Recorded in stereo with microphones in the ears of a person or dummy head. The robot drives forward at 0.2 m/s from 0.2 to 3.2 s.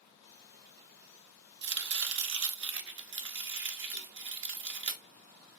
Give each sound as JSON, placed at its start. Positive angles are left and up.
{"t": 1.6, "sound": "chopping", "side_deg": -55, "distance_m": 0.8}
{"t": 3.9, "sound": "a cowbell", "side_deg": -45, "distance_m": 3.0}